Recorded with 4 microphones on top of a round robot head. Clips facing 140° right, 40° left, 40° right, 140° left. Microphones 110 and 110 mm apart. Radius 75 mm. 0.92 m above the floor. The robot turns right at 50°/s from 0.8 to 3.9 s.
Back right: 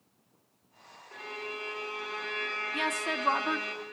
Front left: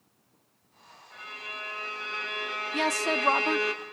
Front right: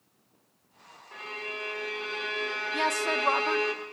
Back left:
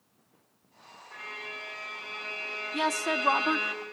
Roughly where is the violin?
Right.